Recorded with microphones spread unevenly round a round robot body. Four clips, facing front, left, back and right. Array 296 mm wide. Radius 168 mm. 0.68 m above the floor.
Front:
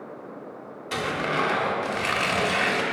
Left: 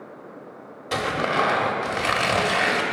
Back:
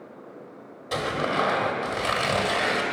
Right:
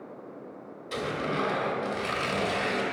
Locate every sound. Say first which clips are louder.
0.9 s tearing paper: left 7 dB, back 1 dB; 90° left, 1.1 m